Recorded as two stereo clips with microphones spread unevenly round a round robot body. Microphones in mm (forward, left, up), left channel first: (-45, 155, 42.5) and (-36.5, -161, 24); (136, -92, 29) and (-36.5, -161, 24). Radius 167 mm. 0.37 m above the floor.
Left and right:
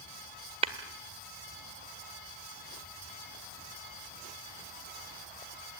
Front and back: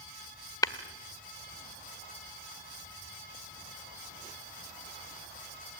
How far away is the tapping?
About 1.5 m.